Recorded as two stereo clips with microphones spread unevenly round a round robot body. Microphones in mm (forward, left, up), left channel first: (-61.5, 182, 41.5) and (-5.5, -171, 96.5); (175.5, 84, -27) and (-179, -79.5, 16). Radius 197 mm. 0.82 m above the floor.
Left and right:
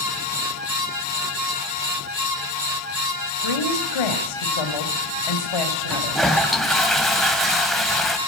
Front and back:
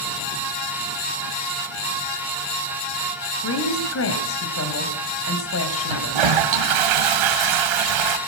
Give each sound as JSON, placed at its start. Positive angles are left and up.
{"t": 3.4, "sound": "a woman speaking", "azimuth_deg": 80, "distance_m": 4.0}
{"t": 5.9, "sound": "a toilet flushing", "azimuth_deg": -170, "distance_m": 2.5}